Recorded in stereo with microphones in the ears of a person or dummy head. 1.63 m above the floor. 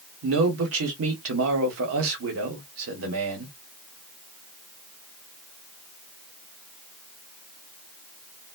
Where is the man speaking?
75° right (ahead or behind), 1.0 m.